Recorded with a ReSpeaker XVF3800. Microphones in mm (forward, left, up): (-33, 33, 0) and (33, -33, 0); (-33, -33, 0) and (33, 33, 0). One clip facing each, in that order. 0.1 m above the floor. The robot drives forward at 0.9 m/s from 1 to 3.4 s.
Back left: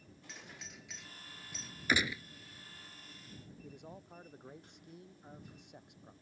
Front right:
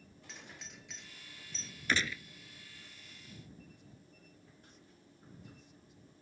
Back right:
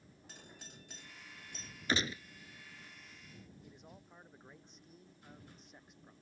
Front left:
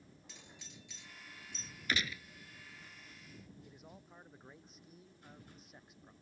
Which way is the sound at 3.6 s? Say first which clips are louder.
Back left 7 dB, even; 130° left.